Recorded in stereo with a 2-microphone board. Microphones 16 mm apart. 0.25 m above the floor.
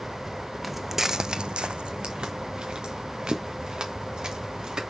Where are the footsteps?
5° right (ahead or behind), 0.9 m; by 4.8 s 45° right (ahead or behind), 3.5 m.